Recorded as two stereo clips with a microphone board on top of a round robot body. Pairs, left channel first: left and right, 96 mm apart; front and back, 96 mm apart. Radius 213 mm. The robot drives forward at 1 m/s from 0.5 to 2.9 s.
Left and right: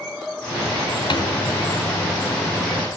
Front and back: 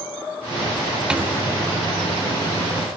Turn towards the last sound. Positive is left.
turn(degrees=165)